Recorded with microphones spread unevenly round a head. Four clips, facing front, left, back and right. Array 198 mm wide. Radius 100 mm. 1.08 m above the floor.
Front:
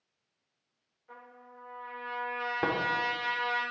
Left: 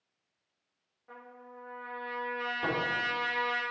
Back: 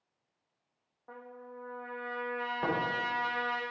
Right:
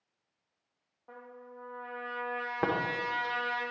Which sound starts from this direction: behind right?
A trumpet, at 1.1 s.